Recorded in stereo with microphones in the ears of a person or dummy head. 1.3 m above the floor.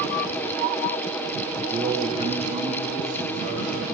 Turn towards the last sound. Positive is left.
turn(degrees=-40)  # may be behind; listen again after turning